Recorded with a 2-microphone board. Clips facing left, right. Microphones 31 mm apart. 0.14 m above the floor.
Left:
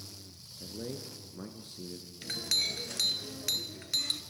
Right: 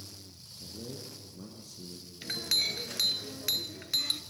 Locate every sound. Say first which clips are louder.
0.6 s a man speaking: left 3 dB; 40° left (ahead or behind), 2.5 m
2.2 s a clink: right 1 dB; 10° right (ahead or behind), 1.4 m